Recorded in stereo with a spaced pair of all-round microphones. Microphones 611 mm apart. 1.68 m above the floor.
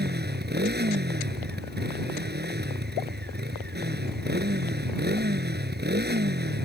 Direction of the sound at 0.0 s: 15° right (ahead or behind).